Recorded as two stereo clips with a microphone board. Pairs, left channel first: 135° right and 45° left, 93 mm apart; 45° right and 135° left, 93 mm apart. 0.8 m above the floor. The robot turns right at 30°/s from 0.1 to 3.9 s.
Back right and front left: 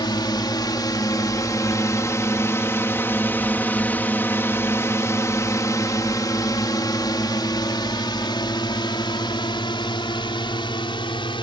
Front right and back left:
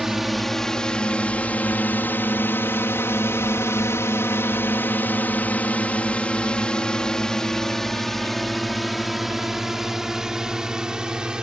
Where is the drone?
140° right; by 11.4 s 145° right.